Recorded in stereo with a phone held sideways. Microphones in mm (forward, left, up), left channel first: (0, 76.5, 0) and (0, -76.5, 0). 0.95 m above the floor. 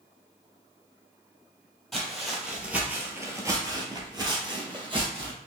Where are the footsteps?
Centre (ahead or behind), 1.3 m; by 5.3 s 30° right (ahead or behind), 1.4 m.